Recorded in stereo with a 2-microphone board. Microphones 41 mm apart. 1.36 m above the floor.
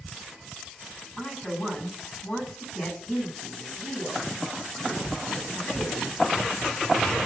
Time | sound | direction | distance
1.2 | a woman speaking | 30° left (ahead or behind) | 9.5 m